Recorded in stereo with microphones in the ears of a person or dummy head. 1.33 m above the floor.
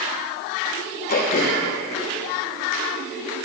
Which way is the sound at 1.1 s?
45° left (ahead or behind).